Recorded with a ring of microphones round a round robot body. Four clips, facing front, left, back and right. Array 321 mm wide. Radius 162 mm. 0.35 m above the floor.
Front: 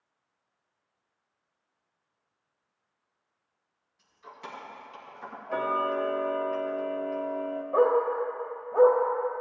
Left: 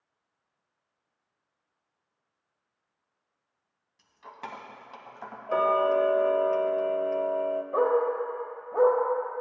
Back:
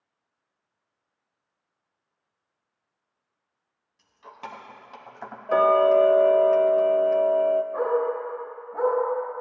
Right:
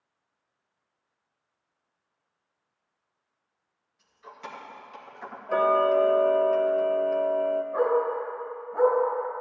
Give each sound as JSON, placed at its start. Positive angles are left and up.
{"t": 4.0, "sound": "keys jangling", "azimuth_deg": 120, "distance_m": 1.9}
{"t": 5.5, "sound": "ticking", "azimuth_deg": 175, "distance_m": 0.7}
{"t": 7.7, "sound": "a dog barking", "azimuth_deg": 50, "distance_m": 3.5}